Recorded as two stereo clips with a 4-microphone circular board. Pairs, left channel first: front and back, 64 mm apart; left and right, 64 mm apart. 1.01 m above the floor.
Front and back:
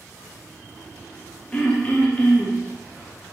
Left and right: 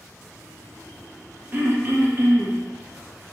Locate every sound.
1.5 s throat clearing: 60° right, 0.5 m